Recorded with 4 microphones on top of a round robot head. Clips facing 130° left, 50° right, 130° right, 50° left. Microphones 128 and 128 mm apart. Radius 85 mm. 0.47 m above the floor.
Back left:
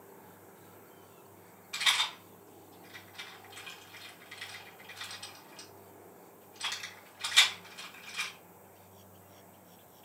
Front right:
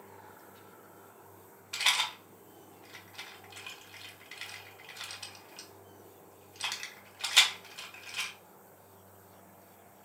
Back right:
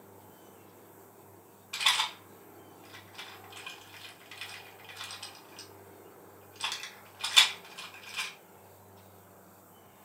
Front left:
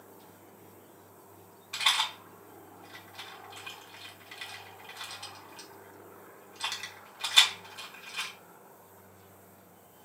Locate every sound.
1.7 s a rattle: 45° right, 1.4 m